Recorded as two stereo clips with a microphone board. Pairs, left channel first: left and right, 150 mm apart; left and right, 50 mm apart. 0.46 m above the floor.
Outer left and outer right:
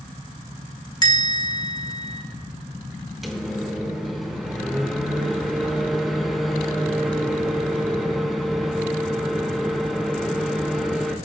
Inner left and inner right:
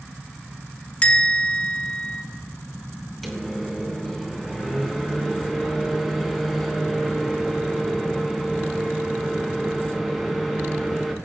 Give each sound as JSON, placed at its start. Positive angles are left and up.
{"t": 1.0, "sound": "a bell", "side_deg": 30, "distance_m": 2.5}
{"t": 3.2, "sound": "a microwave", "side_deg": 0, "distance_m": 3.5}